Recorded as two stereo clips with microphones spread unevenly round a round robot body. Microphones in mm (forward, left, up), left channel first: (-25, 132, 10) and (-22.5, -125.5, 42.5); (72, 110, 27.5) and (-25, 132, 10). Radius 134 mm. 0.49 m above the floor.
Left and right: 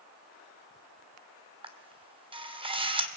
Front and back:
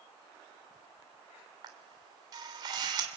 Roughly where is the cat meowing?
No cat meowing in this recording.